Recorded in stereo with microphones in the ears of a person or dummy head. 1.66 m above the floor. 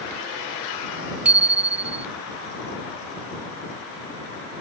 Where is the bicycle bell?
10° right (ahead or behind).